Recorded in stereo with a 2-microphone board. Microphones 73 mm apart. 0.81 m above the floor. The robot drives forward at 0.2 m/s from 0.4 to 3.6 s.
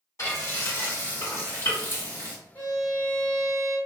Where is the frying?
45° left (ahead or behind), 1.6 m; by 2.4 s 35° left (ahead or behind), 1.8 m.